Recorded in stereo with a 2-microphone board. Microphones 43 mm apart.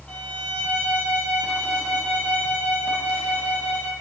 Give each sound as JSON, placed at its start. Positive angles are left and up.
{"t": 0.1, "sound": "a violin", "side_deg": 25, "distance_m": 6.5}